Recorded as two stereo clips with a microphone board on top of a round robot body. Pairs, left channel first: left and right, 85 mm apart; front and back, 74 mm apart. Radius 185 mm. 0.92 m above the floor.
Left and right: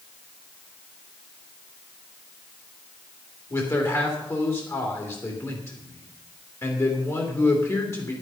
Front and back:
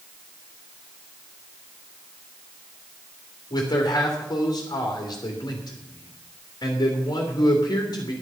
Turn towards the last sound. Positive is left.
turn(degrees=35)